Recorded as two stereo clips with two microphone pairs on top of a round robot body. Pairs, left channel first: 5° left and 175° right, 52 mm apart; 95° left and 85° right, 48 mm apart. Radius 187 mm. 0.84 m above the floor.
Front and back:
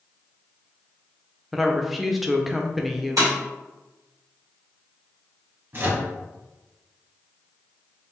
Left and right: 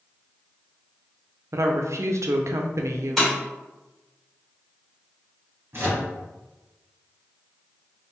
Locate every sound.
1.5 s a woman speaking: 90° right, 0.5 m
3.2 s breaking glass: 175° left, 1.9 m
5.7 s a microwave: 130° right, 1.8 m